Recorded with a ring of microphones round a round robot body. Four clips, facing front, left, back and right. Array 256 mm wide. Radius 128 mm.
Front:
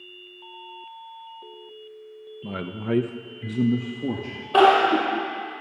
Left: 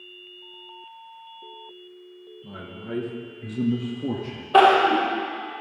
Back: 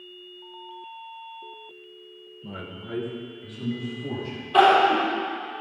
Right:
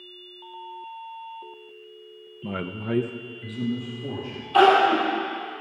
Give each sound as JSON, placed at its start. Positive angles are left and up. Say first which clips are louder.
{"t": 2.4, "sound": "a man speaking", "louder": "right 7 dB, front 8 dB", "azimuth_deg": -70, "distance_m": 1.0}
{"t": 4.5, "sound": "crying", "louder": "left 1 dB, front 1 dB", "azimuth_deg": 65, "distance_m": 5.5}